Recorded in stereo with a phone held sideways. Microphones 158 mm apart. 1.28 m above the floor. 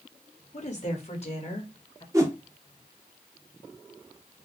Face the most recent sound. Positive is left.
turn(degrees=-20)  # may be behind; listen again after turning